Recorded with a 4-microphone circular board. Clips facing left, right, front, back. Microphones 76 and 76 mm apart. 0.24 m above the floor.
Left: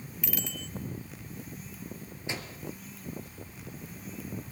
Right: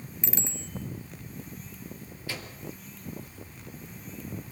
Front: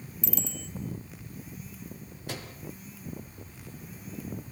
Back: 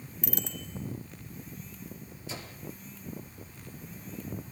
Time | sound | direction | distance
0.2 | a bicycle bell | 155° right | 2.5 m
2.3 | a microwave | 20° left | 4.5 m